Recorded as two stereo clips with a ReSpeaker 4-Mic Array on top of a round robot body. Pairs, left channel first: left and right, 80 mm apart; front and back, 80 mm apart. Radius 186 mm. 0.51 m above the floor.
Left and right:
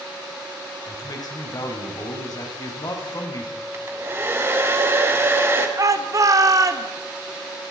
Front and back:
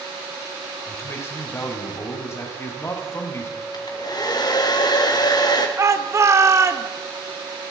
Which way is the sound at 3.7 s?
30° right.